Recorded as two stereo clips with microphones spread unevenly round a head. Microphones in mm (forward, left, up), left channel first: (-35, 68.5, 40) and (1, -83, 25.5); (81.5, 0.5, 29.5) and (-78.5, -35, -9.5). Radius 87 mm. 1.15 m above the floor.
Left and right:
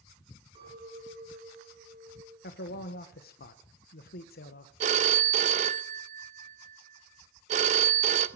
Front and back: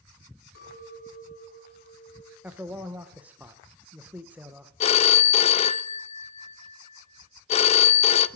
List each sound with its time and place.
0.6 s a clink: 15° right, 8 m
2.4 s a man speaking: 120° left, 0.9 m
4.8 s a phone ringing: 25° right, 0.5 m